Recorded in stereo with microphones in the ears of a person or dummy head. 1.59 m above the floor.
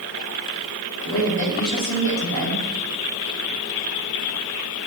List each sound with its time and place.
1.1 s a woman speaking: 85° left, 4 m